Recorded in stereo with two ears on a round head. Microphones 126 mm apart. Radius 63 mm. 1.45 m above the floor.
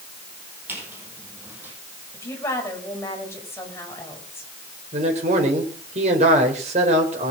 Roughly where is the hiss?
I don't hear a hiss.